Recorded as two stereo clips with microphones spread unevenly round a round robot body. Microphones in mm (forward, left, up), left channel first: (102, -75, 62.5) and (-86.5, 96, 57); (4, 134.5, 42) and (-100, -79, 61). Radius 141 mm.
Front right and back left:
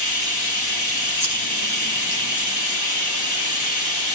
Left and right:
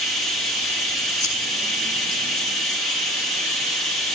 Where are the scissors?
35° right, 7 m.